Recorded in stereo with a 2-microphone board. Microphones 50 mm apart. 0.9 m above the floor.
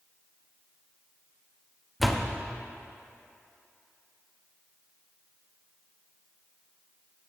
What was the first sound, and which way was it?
A door slam, centre (ahead or behind).